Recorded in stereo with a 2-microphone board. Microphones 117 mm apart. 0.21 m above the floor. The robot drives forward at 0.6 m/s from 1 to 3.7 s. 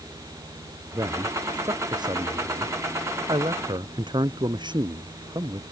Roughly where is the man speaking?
Right.